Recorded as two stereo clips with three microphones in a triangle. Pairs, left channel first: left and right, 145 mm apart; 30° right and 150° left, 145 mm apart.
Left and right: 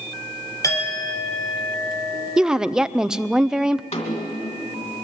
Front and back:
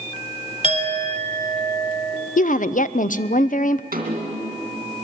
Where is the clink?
20° left, 3 m.